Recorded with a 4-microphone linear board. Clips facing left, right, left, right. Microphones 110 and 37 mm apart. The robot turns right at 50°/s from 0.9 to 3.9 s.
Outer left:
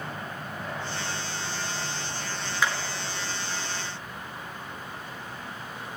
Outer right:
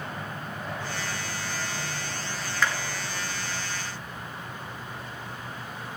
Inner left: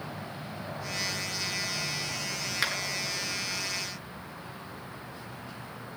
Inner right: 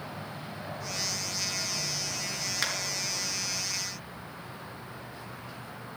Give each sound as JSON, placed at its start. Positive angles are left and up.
{"t": 2.6, "sound": "a clap", "side_deg": 10, "distance_m": 4.5}